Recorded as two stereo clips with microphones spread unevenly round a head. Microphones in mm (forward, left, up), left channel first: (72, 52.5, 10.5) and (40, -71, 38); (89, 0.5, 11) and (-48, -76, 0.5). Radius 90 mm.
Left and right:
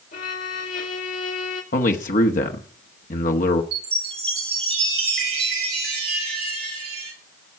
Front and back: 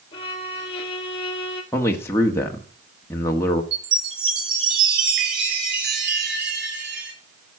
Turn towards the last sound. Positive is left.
turn(degrees=-135)